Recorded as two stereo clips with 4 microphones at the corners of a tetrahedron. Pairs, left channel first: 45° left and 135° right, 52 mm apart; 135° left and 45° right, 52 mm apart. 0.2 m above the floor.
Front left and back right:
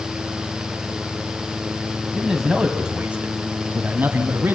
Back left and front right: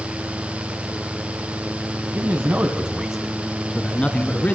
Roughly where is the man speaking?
Ahead right.